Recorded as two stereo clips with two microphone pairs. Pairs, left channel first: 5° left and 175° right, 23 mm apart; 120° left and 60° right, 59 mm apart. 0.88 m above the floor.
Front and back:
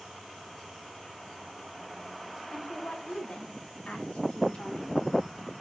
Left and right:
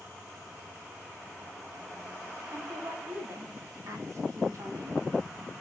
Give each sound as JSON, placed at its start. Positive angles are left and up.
{"t": 2.5, "sound": "a woman speaking", "azimuth_deg": -10, "distance_m": 3.0}